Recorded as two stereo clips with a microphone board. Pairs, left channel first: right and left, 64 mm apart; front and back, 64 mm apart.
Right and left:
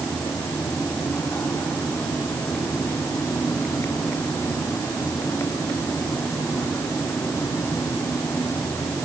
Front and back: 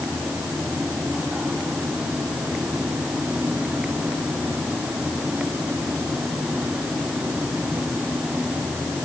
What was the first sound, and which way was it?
Only background noise.